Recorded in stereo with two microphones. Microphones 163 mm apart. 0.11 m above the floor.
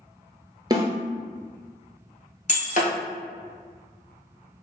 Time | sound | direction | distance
0.7 | a snare drum | 25° right (ahead or behind) | 0.6 m
2.5 | breaking glass | 50° left (ahead or behind) | 0.9 m